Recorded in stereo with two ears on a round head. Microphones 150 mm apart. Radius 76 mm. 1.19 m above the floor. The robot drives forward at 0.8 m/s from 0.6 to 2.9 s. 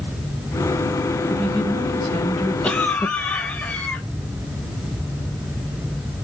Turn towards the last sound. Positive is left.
turn(degrees=10)  # may be behind; listen again after turning